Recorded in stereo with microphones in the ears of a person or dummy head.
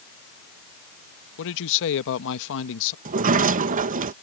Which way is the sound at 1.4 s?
65° left (ahead or behind).